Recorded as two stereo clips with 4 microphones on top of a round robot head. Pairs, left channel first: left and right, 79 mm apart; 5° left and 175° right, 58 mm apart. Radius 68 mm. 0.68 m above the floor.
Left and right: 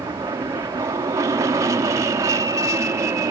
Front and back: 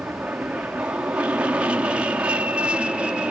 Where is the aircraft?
110° right.